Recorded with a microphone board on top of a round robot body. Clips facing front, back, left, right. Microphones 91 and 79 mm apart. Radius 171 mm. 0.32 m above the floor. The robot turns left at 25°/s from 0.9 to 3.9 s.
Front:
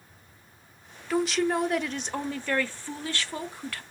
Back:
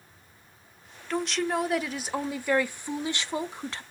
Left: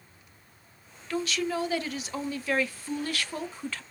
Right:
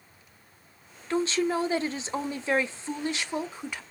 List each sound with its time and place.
1.1 s a woman speaking: 80° right, 0.9 m; by 3.8 s 150° right, 0.9 m